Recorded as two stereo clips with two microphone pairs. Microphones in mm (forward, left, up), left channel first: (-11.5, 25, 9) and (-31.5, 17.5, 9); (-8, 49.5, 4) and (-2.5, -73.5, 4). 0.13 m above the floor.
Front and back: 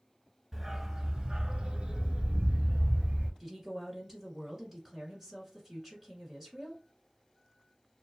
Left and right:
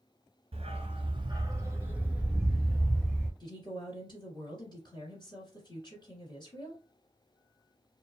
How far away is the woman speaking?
About 1.8 m.